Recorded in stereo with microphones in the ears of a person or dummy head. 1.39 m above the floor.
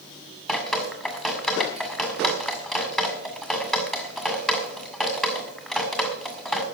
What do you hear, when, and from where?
0.5 s dripping: centre (ahead or behind), 2 m